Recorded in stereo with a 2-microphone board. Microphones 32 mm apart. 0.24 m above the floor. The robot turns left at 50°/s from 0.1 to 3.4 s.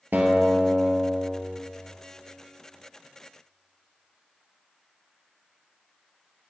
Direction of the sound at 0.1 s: 105° right.